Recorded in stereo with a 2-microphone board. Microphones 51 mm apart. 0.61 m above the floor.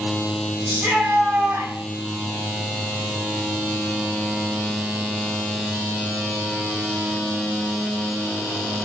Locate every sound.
0.7 s a shout: 25° right (ahead or behind), 3.5 m; by 1.7 s 20° right (ahead or behind), 4 m